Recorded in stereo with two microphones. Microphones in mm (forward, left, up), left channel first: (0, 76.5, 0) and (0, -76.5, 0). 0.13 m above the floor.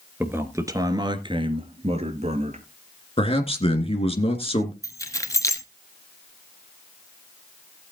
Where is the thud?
I don't hear a thud.